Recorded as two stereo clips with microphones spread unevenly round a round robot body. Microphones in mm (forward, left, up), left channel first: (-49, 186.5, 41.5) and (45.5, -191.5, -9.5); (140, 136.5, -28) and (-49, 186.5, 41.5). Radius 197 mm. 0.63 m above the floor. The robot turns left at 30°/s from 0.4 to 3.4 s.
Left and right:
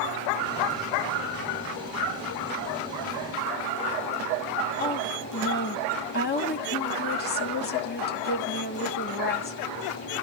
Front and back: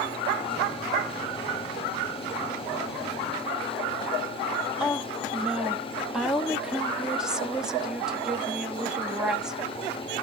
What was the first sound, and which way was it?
A woman speaking, 45° left.